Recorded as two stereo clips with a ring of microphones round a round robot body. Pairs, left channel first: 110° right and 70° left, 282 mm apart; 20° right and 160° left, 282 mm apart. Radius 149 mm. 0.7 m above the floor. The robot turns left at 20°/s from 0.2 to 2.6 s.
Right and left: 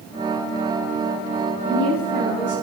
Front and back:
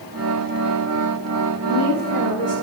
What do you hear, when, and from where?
1.6 s a woman speaking: 40° right, 8 m; by 2.5 s 60° right, 8 m